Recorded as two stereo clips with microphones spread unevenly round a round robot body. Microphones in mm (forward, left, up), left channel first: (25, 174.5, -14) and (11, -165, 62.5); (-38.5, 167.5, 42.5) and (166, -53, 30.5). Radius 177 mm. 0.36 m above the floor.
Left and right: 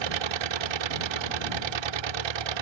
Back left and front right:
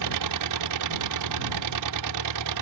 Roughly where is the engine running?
Right.